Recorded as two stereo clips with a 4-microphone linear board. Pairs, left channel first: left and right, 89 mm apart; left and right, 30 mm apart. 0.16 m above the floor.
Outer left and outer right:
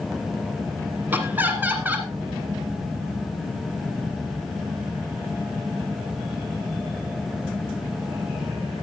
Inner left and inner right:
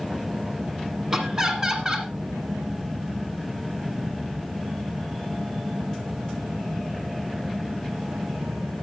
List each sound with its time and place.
1.1 s laughter: 20° right (ahead or behind), 1.6 m